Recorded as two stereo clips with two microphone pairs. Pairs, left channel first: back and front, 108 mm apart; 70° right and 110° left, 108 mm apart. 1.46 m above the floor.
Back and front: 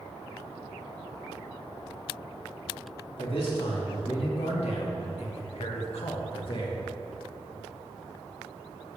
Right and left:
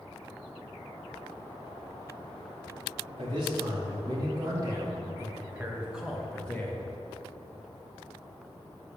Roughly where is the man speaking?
Behind left.